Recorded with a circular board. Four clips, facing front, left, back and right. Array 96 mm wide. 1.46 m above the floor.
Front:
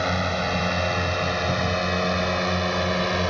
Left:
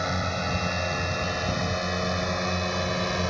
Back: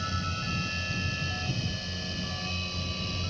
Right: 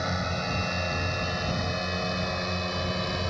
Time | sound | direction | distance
0.0 | a drone | 5° left | ?